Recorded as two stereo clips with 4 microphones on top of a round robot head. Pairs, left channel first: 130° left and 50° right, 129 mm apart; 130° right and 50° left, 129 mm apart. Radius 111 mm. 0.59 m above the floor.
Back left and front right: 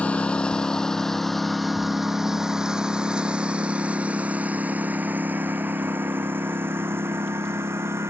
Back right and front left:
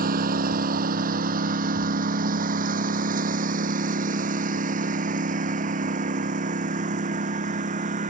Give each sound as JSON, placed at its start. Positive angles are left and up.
{"t": 0.0, "sound": "a lawn mower", "azimuth_deg": 50}